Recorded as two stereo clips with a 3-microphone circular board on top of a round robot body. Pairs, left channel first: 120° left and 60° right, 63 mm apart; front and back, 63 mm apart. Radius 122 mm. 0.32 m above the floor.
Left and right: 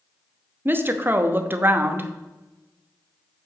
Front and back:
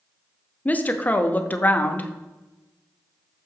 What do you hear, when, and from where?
0.7 s a woman speaking: 40° right, 1.0 m